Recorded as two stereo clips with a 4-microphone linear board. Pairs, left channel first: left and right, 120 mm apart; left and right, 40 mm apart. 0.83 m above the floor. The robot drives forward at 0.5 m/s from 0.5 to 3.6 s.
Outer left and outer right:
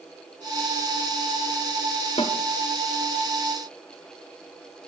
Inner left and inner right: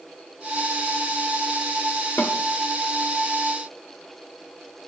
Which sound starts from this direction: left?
A snare drum, at 2.2 s.